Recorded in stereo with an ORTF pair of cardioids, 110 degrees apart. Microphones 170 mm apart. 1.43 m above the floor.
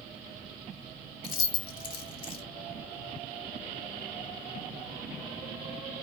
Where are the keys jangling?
30° left, 1.4 m.